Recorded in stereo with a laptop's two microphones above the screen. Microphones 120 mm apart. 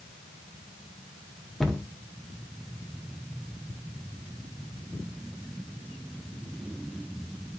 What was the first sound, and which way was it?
A cupboard door, centre (ahead or behind).